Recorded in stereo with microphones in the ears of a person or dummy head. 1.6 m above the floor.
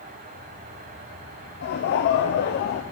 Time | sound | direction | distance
1.6 | laughter | 50° left (ahead or behind) | 0.5 m